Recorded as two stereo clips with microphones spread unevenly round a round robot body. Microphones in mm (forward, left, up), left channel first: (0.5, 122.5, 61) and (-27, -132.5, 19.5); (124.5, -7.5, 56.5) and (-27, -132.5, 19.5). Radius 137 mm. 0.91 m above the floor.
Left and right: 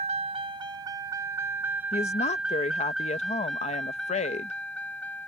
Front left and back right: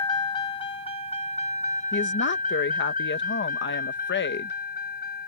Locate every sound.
0.0 s a vehicle: 25° right; by 5.3 s straight ahead
1.9 s a woman speaking: 15° left